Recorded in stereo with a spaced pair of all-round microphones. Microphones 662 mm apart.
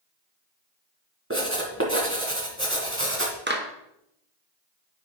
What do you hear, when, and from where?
1.3 s writing: 20° right (ahead or behind), 1.9 m
3.5 s a clap: 15° right (ahead or behind), 1.1 m